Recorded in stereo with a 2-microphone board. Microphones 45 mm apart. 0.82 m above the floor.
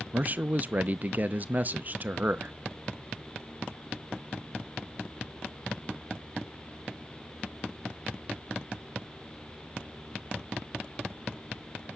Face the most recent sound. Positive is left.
turn(degrees=-40)  # may be behind; listen again after turning